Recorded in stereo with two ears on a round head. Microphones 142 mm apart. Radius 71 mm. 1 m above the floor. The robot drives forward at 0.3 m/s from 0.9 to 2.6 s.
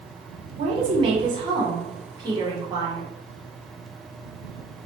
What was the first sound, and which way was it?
A woman speaking, 35° right (ahead or behind).